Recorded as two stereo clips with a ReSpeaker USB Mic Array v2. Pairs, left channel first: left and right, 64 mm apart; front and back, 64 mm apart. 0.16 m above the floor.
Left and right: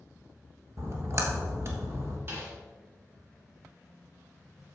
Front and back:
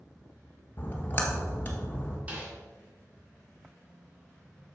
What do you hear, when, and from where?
0.8 s a splash: 55° right, 1.5 m
2.3 s a snare drum: 125° right, 2.5 m